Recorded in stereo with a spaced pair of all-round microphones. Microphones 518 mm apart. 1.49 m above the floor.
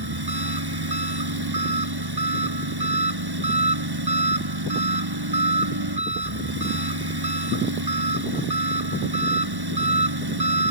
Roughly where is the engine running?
Right.